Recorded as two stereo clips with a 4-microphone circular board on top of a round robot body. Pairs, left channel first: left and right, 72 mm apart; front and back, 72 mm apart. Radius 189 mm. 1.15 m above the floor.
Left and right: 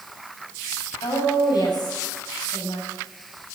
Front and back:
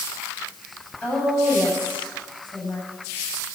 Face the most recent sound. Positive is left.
turn(degrees=70)